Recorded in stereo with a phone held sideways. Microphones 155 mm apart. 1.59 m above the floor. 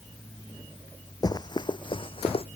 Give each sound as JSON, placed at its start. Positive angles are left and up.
{"t": 1.2, "sound": "running footsteps", "side_deg": 25}